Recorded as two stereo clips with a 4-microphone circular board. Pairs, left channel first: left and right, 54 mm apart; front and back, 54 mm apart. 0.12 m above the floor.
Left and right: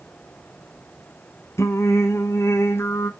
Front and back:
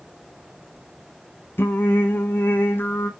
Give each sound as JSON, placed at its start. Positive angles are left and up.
{"t": 1.6, "sound": "singing", "azimuth_deg": 50, "distance_m": 1.1}